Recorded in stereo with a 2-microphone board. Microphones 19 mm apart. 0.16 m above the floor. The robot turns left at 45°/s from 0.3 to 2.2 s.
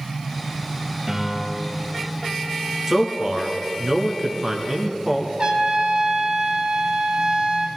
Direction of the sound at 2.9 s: 20° right (ahead or behind).